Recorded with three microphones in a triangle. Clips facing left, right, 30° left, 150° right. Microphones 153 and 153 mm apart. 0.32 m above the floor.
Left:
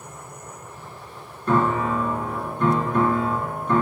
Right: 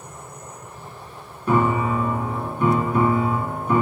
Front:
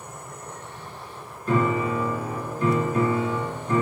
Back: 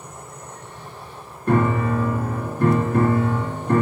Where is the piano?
170° right, 0.7 m.